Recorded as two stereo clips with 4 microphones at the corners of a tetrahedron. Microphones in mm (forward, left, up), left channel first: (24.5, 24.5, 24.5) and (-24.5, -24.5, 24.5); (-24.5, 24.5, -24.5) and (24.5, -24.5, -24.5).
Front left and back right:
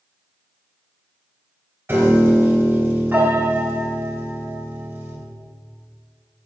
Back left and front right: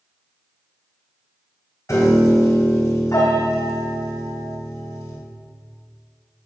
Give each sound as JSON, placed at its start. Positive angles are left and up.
{"t": 1.9, "sound": "a piano", "azimuth_deg": 170, "distance_m": 2.5}